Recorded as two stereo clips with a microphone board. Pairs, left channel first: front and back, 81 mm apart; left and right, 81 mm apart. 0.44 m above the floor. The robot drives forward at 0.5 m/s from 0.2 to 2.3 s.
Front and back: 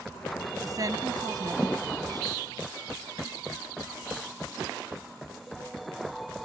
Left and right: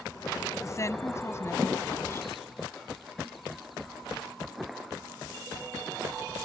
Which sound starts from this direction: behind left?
A woman speaking, at 0.6 s.